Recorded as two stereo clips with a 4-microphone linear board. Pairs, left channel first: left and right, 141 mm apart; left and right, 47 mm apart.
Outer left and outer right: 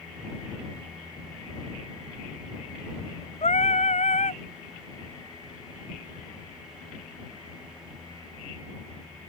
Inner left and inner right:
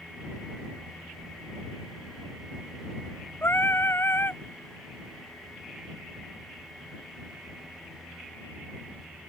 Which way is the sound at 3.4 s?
55° left (ahead or behind).